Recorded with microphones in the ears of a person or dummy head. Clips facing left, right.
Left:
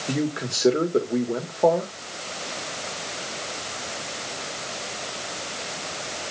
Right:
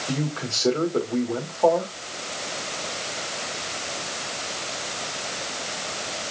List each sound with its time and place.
0.1 s a man speaking: 25° left (ahead or behind), 2.5 m